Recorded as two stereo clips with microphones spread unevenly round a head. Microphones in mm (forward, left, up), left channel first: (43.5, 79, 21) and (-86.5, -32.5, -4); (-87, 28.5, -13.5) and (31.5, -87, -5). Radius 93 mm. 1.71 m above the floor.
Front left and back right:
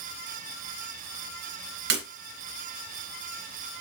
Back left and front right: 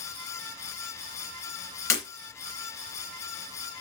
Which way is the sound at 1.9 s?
150° right.